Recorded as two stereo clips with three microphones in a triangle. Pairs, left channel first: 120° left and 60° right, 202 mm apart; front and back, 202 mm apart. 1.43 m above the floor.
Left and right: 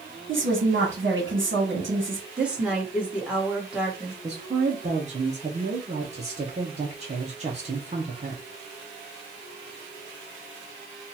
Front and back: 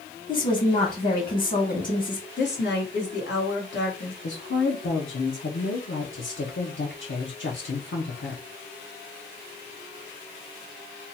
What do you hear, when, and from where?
0.3 s a woman speaking: 45° right, 1.1 m
2.4 s a woman speaking: 25° left, 1.4 m
4.2 s a woman speaking: 5° right, 0.8 m